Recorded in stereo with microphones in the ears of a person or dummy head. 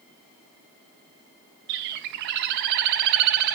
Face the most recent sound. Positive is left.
turn(degrees=-55)  # may be behind; listen again after turning